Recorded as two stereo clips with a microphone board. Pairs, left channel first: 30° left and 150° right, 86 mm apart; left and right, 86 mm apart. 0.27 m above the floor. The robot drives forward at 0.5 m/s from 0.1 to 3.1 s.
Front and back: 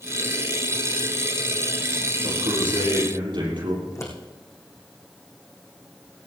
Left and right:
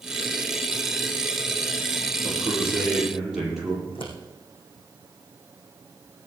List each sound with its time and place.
2.2 s a man speaking: 170° right, 8 m; by 3.8 s 175° right, 8 m
3.9 s scissors: 85° left, 4.5 m